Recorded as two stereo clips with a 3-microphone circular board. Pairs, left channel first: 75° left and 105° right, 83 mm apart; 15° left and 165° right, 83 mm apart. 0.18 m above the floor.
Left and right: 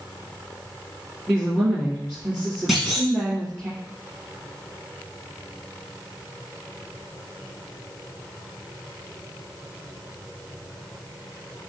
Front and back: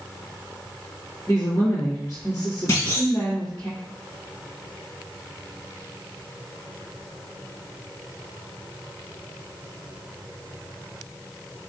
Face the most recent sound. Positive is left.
turn(degrees=-15)